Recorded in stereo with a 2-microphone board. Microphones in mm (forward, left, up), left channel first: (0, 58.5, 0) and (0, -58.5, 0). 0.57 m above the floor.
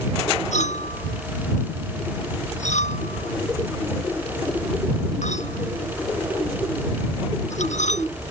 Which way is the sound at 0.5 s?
85° left.